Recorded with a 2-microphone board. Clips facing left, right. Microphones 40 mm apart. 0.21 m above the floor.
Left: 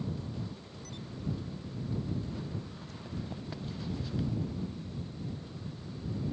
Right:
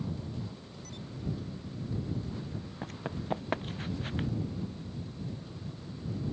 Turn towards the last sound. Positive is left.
turn(degrees=-45)  # may be behind; listen again after turning